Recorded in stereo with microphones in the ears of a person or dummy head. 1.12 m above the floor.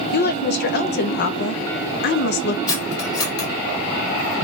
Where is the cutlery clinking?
25° left (ahead or behind), 1.1 m.